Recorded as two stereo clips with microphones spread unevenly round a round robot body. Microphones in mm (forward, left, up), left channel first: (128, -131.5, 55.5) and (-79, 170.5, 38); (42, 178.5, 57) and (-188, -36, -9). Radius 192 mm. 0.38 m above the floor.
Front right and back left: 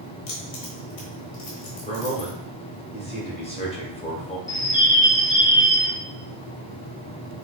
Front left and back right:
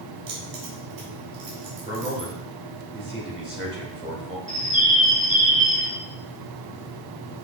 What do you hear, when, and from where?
0.3 s keys jangling: 90° right, 1.5 m
1.9 s a man speaking: 120° right, 1.4 m
4.5 s a bird: 130° right, 0.6 m